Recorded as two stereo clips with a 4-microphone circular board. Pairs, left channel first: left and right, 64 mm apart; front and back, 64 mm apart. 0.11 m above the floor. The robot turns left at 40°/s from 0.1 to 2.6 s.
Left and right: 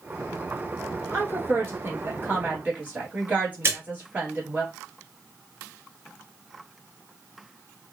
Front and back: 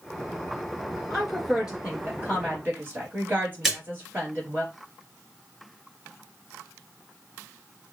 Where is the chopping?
I don't hear chopping.